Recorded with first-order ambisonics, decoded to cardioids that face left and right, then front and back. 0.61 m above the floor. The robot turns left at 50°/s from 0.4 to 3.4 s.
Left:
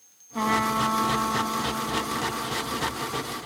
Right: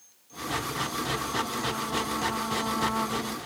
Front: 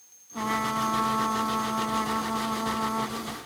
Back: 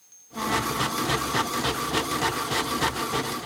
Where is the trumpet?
85° left; by 3.4 s 60° right.